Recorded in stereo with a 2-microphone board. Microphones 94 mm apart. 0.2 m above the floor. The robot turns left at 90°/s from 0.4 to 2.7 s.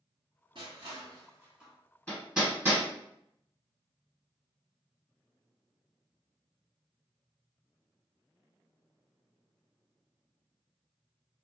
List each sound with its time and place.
0.6 s crushing: 55° right (ahead or behind), 1.2 m; by 1.7 s centre (ahead or behind), 1.2 m
2.1 s hammering: 15° left (ahead or behind), 1.6 m; by 2.8 s 20° right (ahead or behind), 1.6 m